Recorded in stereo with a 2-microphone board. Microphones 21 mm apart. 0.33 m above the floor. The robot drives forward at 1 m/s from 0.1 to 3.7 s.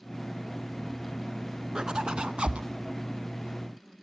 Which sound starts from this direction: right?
A zipper, at 1.8 s.